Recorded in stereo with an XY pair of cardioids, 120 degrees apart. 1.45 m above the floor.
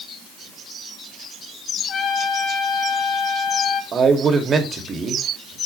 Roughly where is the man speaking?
Ahead right.